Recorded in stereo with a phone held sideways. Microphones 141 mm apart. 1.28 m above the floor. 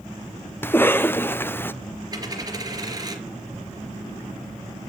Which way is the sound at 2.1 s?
25° right (ahead or behind).